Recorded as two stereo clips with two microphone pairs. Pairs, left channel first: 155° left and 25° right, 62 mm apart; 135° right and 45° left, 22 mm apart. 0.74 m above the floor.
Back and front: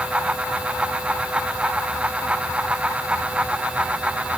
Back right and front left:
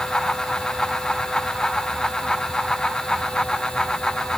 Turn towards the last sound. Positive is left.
No sound to turn to.